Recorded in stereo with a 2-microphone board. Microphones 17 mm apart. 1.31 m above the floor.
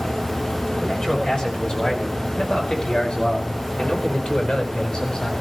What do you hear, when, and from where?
0.8 s a man speaking: 60° left (ahead or behind), 7 m; by 5.3 s 70° left (ahead or behind), 5.5 m